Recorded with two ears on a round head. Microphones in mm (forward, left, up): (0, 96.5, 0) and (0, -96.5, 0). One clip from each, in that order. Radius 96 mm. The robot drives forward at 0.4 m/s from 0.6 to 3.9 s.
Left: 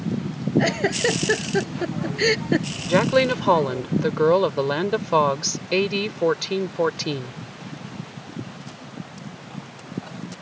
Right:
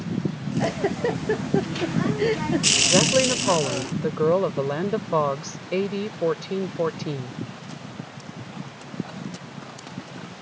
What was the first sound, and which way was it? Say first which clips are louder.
A giggle: left 3 dB; 85° left.